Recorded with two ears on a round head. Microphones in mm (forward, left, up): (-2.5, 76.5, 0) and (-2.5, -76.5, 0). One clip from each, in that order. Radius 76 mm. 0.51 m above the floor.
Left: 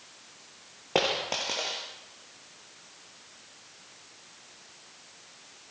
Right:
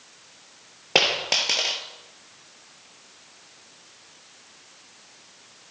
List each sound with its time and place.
0.9 s a dropped coin: 70° right (ahead or behind), 3.5 m